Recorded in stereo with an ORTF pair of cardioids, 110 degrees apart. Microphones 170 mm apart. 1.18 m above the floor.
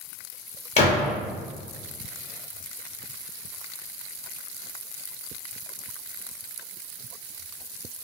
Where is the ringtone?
No ringtone in this recording.